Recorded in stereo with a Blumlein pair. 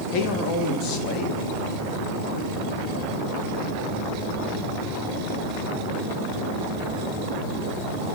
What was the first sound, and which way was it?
A man speaking, 35° left.